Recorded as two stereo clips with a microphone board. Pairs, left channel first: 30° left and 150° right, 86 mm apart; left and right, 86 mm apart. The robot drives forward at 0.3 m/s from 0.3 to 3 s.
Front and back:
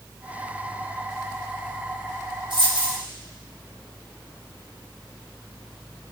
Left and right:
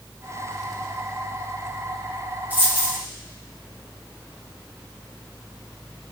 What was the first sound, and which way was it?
A dropped coin, 160° right.